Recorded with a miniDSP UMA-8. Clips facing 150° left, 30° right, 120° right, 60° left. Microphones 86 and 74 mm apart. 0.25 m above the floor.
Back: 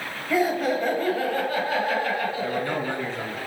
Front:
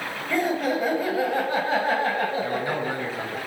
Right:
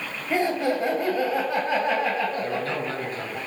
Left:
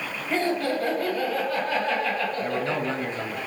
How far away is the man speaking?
About 1.2 m.